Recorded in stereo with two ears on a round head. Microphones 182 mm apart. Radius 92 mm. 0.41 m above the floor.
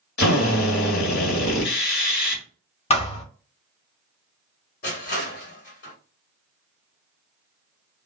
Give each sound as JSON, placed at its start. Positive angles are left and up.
{"t": 0.2, "sound": "a drill", "side_deg": 55, "distance_m": 1.7}
{"t": 2.9, "sound": "a thud", "side_deg": 30, "distance_m": 0.6}
{"t": 4.8, "sound": "crushing", "side_deg": 45, "distance_m": 1.8}